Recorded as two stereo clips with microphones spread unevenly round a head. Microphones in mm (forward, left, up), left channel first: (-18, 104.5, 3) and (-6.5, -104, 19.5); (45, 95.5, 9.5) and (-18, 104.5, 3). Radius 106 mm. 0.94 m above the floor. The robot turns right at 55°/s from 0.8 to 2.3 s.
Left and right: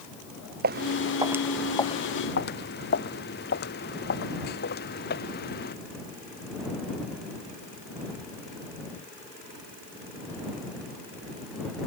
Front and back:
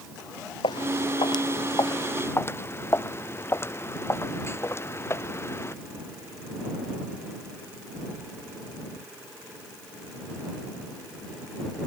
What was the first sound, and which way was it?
Footsteps, 35° right.